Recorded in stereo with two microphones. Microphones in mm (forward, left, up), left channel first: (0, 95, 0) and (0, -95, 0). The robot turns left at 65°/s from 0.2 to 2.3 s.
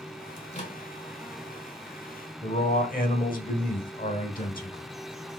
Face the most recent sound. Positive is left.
turn(degrees=45)  # may be behind; listen again after turning